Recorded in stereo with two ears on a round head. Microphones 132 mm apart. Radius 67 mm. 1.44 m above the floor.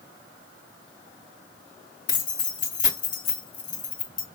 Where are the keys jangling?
55° left (ahead or behind), 1.3 m.